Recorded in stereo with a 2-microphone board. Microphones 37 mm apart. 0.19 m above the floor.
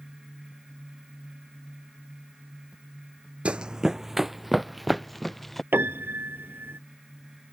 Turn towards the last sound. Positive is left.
turn(degrees=-70)  # may be behind; listen again after turning